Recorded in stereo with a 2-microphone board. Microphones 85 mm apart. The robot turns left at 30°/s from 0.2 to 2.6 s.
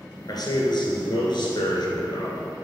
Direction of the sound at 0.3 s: 125° left.